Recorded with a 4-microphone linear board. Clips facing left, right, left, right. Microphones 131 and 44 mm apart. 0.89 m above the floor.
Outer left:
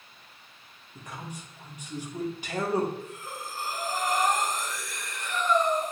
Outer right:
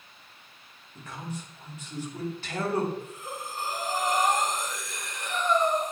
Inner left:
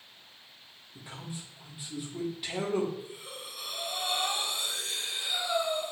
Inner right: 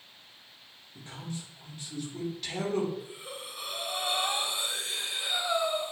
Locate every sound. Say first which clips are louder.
0.9 s a man speaking: outer right 2 dB, inner right 2 dB; 15° left (ahead or behind), 2.5 m
3.0 s breathing: outer right 1 dB, inner right 1 dB; 20° right (ahead or behind), 1.6 m